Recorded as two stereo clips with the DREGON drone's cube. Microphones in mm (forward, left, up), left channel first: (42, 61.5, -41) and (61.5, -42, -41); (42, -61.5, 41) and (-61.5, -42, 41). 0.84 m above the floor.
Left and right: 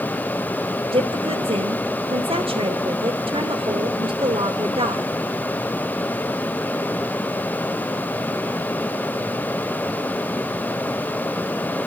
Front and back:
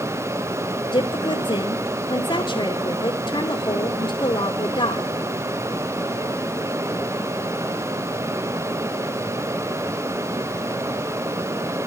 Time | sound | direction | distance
0.9 | a woman speaking | 55° right | 3 m